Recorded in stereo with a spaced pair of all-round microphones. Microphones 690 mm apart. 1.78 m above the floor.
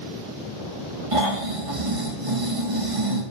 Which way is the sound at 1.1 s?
50° right (ahead or behind).